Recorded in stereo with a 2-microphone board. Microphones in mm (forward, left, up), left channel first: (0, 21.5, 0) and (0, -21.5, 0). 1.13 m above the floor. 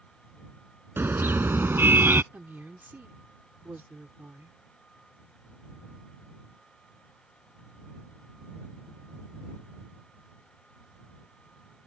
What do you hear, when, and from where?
1.0 s a car horn: 55° right (ahead or behind); by 2.2 s 60° right (ahead or behind)
2.3 s a woman speaking: 50° right (ahead or behind)